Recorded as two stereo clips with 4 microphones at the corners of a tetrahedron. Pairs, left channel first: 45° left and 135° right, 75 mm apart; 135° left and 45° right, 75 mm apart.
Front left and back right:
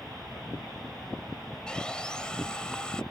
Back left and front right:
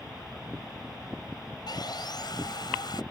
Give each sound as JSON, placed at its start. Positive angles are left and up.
{"t": 1.7, "sound": "sawing", "azimuth_deg": 120}